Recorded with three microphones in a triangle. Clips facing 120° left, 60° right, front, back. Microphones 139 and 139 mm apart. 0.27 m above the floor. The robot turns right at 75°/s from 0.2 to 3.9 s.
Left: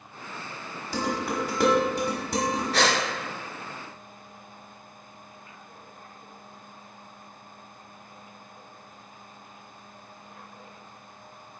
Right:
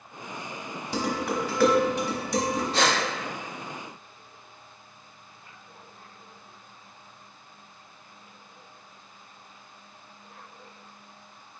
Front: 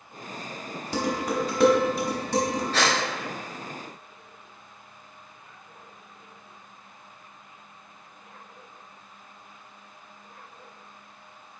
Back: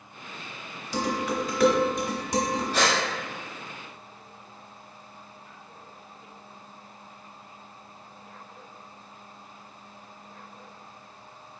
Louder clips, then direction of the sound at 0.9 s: Even, front 1 dB; 5° left.